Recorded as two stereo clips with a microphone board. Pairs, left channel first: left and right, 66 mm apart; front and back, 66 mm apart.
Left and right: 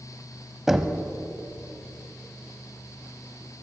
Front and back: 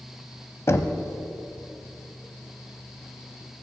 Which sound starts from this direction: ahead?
Knocking, at 0.7 s.